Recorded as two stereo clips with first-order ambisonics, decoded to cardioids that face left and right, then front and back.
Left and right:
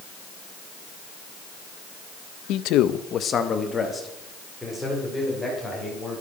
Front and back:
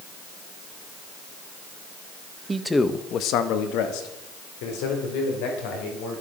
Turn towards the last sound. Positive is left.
turn(degrees=0)